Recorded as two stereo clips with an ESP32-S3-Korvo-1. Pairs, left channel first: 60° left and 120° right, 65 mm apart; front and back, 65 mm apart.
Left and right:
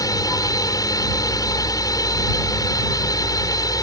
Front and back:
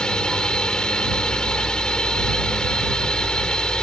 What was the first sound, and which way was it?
A drone, 80° left.